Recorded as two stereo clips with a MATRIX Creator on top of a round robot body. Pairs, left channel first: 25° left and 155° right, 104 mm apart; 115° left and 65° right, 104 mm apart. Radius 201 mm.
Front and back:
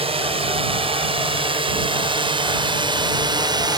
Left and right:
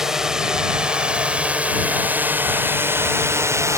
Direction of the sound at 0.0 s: 155° right.